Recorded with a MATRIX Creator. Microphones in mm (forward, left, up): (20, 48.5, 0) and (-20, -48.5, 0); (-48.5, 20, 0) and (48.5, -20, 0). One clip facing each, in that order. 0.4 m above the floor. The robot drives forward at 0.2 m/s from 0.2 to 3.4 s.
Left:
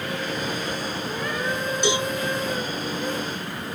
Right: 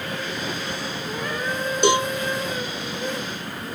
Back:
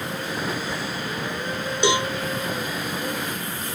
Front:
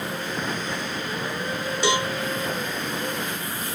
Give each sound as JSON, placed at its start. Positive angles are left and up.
{"t": 1.8, "sound": "a cowbell", "azimuth_deg": -135, "distance_m": 0.9}